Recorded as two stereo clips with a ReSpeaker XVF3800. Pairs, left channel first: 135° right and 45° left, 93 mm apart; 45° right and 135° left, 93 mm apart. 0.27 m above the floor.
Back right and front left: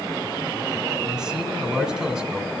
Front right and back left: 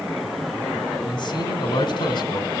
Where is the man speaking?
35° right, 1.8 m.